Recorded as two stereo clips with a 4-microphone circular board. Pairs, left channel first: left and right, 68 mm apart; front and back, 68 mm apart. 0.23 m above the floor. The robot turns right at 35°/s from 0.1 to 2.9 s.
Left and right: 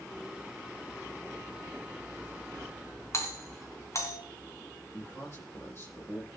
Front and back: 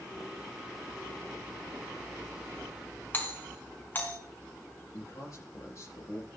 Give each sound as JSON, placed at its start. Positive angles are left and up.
{"t": 3.1, "sound": "a doorbell", "azimuth_deg": 55, "distance_m": 3.5}
{"t": 4.9, "sound": "a man speaking", "azimuth_deg": 35, "distance_m": 7.5}